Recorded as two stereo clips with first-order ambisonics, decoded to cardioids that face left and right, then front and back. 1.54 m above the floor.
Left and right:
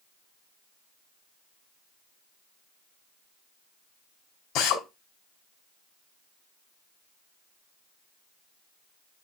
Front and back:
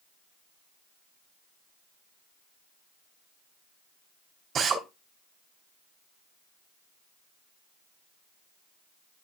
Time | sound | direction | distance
4.5 | a drill | 120° left | 3 m